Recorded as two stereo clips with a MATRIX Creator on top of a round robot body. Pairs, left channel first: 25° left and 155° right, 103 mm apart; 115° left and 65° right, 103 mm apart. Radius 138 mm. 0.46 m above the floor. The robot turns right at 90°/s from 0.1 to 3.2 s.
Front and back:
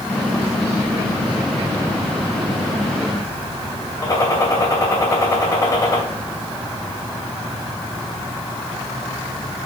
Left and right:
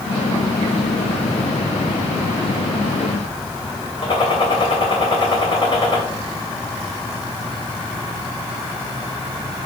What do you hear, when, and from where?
4.0 s a gunshot: 80° left, 2.5 m